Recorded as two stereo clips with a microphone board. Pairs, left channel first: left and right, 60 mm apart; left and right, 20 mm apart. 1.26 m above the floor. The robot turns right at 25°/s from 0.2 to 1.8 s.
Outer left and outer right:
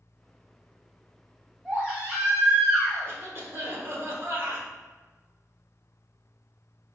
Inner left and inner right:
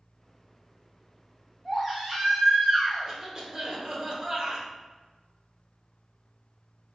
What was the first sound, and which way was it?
A baby crying, 15° right (ahead or behind).